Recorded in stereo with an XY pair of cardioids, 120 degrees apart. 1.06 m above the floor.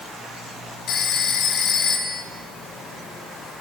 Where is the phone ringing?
60° left, 1.4 m.